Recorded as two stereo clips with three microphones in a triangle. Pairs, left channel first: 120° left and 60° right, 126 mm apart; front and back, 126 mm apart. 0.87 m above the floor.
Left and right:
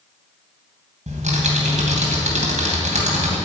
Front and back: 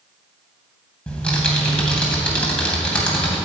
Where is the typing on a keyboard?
85° right, 3 m.